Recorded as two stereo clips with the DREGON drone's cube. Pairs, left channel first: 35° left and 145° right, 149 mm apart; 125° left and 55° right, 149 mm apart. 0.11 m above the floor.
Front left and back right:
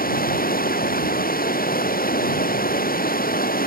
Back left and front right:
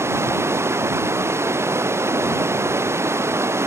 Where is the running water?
20° left.